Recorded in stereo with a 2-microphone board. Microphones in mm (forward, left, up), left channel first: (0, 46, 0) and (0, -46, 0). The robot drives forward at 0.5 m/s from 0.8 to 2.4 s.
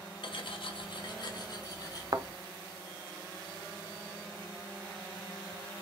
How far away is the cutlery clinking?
About 0.8 m.